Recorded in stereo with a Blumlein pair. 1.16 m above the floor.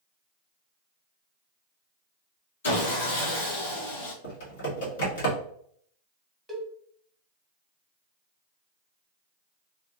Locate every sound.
2.6 s sawing: 65° left, 1.4 m
4.2 s typing on a keyboard: 55° left, 1.5 m
6.5 s a cowbell: 5° right, 0.9 m